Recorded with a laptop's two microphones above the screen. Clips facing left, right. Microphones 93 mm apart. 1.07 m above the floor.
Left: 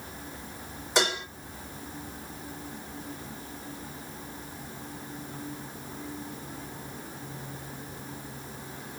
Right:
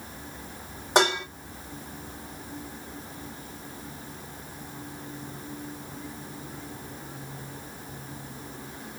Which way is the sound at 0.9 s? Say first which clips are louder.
Right 5 dB; 55° right (ahead or behind).